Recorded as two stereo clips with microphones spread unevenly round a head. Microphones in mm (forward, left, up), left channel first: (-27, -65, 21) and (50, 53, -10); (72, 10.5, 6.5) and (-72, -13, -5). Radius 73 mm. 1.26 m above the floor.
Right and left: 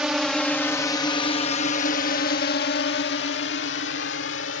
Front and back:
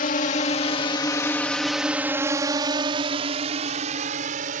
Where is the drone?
30° right; by 4.6 s 135° right.